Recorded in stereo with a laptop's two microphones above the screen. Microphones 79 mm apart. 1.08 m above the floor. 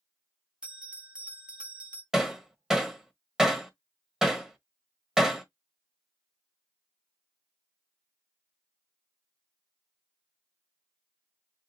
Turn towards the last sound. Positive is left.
turn(degrees=-5)  # may be behind; listen again after turning